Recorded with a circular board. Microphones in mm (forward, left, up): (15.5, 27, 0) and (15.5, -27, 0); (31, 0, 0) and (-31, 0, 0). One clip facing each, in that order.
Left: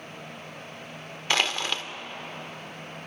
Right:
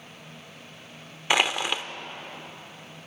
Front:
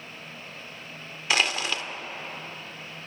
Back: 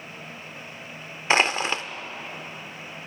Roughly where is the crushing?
Behind right.